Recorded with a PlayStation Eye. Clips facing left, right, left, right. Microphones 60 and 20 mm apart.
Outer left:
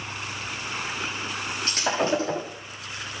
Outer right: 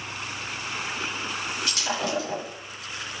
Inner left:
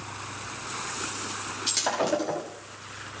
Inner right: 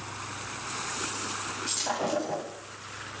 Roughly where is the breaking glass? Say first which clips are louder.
Outer left 6 dB, inner left 5 dB; left.